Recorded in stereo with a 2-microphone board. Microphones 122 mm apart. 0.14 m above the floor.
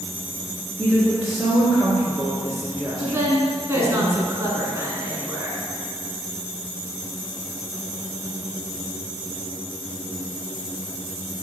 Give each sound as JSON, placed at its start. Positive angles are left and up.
{"t": 0.8, "sound": "a woman speaking", "side_deg": -5, "distance_m": 2.0}
{"t": 3.0, "sound": "a woman speaking", "side_deg": -25, "distance_m": 1.4}